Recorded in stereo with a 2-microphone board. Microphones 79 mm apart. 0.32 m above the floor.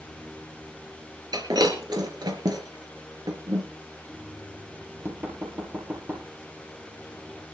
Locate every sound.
1.3 s breaking glass: 60° right (ahead or behind), 3.5 m
4.1 s knocking: 25° right (ahead or behind), 5 m